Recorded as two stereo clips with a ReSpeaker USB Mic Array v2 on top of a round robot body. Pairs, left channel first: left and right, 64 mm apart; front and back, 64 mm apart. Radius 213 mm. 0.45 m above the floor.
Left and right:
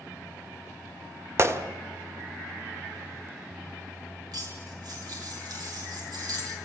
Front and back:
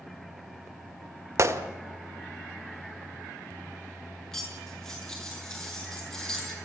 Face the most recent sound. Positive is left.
turn(degrees=-80)